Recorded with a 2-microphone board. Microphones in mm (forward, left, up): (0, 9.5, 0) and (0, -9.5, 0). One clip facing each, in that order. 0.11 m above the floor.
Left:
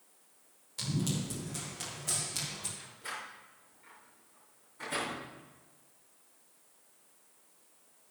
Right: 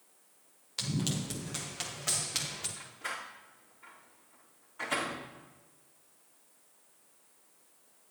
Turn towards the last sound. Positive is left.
turn(degrees=-55)  # may be behind; listen again after turning